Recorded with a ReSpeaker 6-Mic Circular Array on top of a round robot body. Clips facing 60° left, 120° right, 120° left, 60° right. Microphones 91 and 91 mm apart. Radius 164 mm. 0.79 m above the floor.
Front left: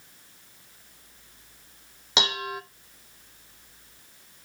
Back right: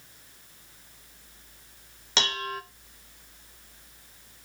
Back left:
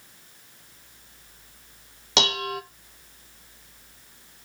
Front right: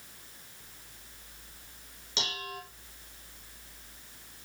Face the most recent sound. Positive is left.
turn(degrees=135)